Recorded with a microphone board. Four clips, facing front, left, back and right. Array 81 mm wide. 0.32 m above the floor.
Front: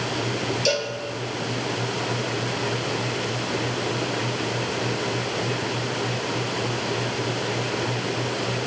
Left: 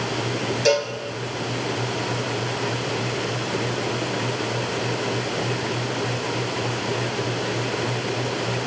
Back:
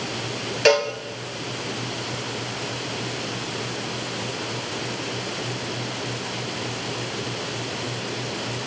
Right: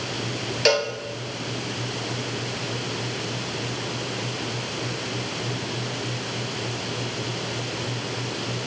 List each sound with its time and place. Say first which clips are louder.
0.7 s a cowbell: left 1 dB, back 9 dB; 160° right, 1.5 m